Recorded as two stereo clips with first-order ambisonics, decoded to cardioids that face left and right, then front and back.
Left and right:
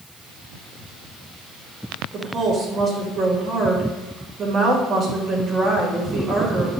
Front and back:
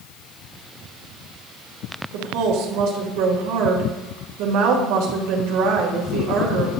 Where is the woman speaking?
155° right, 2 m.